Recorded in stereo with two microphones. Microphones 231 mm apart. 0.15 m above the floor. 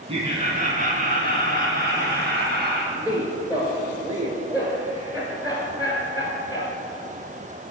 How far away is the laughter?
About 1.1 m.